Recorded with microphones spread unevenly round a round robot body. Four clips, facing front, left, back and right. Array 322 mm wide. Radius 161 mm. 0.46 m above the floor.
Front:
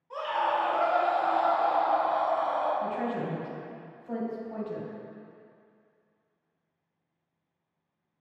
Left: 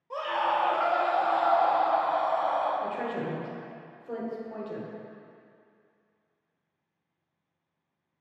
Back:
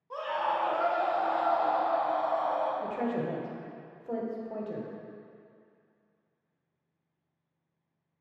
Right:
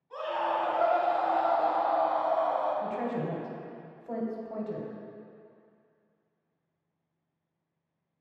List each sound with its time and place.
0.1 s a scream: 130° left, 2.0 m; by 2.7 s 145° left, 3 m
2.8 s a woman speaking: 170° right, 1.5 m